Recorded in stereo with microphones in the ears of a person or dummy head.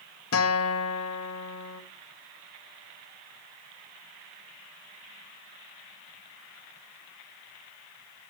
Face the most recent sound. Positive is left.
turn(degrees=80)